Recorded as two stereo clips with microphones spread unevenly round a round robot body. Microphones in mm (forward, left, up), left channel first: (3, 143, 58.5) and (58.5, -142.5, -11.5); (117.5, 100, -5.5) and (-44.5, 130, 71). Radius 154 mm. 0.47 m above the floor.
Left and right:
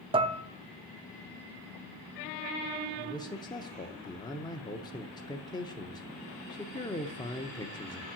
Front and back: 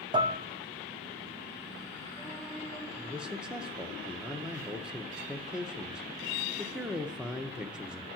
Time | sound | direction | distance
0.1 | dishes clattering | 100° right | 0.6 m
3.0 | a man speaking | 10° left | 0.8 m